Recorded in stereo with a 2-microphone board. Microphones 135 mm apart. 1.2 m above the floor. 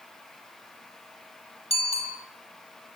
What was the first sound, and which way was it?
A bicycle bell, 50° left (ahead or behind).